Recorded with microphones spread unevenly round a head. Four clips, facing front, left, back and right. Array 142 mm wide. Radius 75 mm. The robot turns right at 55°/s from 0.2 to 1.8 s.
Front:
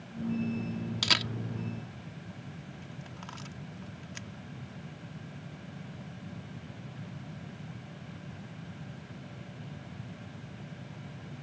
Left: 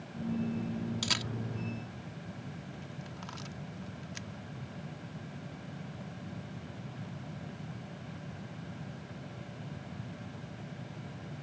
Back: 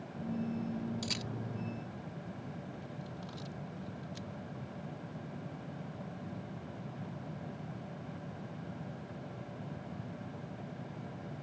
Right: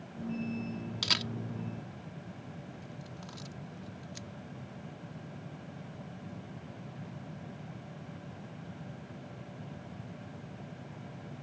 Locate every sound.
1.0 s a camera shutter: 10° right; by 4.3 s 30° left